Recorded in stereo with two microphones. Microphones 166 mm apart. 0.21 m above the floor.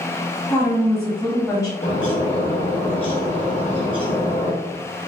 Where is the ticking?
I don't hear ticking.